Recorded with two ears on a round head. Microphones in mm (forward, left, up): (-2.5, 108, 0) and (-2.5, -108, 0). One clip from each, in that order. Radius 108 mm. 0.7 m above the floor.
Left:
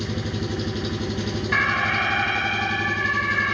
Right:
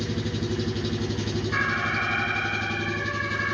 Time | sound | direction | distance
0.0 | an engine running | centre (ahead or behind) | 3 m
1.5 | an alarm | 80° left | 8 m